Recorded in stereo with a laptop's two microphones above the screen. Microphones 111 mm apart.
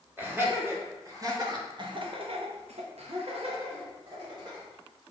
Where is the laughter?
20° right (ahead or behind), 1.8 m; by 4.6 s 40° right (ahead or behind), 1.5 m.